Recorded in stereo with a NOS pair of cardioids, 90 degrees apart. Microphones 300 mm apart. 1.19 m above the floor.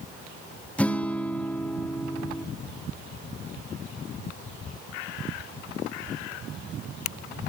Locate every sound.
0.8 s a guitar: 5° left, 1.8 m